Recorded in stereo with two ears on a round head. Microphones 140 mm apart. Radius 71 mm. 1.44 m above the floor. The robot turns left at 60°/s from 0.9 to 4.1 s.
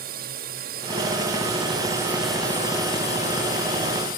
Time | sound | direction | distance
0.0 | a drone | 65° right (ahead or behind) | ?